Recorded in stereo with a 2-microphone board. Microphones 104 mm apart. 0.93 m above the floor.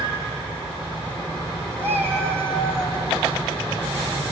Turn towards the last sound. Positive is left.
turn(degrees=-20)  # may be behind; listen again after turning